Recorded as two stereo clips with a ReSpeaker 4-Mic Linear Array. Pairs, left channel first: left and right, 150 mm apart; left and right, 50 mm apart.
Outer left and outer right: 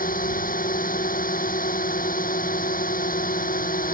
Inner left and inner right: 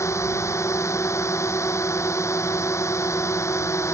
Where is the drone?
70° left (ahead or behind).